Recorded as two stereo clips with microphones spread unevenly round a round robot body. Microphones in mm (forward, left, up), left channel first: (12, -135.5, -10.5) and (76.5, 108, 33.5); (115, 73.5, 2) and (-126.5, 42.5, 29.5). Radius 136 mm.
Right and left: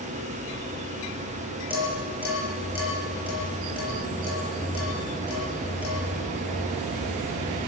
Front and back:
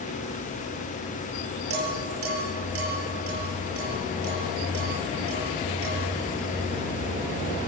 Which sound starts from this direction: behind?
Dishes clattering, at 1.7 s.